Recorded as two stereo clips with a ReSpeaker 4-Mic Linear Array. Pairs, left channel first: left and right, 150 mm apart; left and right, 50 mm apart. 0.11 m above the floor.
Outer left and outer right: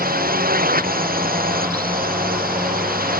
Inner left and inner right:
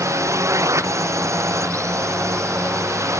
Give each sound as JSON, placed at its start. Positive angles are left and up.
{"t": 0.0, "sound": "a drone", "side_deg": -65}